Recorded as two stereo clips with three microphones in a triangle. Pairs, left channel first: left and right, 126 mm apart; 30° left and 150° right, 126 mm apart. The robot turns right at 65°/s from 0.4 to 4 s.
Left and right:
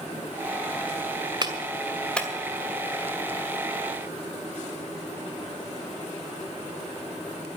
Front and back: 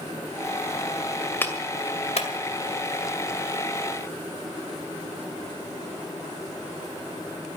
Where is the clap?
40° right, 2 m; by 2.3 s 15° left, 2 m.